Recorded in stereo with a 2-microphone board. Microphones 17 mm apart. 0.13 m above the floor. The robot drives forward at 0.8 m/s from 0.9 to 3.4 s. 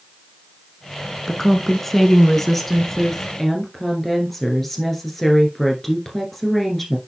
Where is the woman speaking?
15° left (ahead or behind), 1.1 m; by 7.0 s 10° left (ahead or behind), 1.7 m.